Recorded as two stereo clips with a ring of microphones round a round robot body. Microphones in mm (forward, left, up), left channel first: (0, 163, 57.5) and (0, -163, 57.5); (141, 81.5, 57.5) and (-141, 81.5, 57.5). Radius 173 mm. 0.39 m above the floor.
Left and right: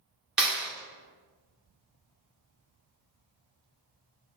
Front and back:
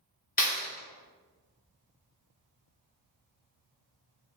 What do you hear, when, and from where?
0.4 s a clap: 5° right, 1.2 m